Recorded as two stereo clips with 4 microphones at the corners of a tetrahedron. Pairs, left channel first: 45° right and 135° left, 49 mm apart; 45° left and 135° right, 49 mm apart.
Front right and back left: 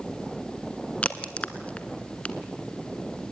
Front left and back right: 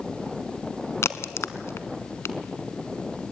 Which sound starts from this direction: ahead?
A crack, at 1.0 s.